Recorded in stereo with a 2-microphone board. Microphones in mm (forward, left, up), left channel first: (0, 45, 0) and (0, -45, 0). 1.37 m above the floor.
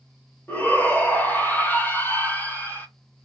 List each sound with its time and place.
0.5 s a shout: 20° left (ahead or behind), 1.4 m